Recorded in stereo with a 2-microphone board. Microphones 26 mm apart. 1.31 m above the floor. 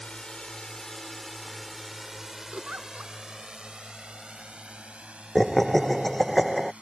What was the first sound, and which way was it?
A drone, 40° left (ahead or behind).